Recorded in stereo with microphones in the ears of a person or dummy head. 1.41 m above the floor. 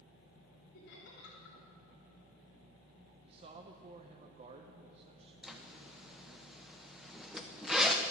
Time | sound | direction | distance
0.7 | laughter | 60° left (ahead or behind) | 3.5 m
3.2 | a man speaking | 35° right (ahead or behind) | 0.8 m
5.4 | a zipper | centre (ahead or behind) | 0.7 m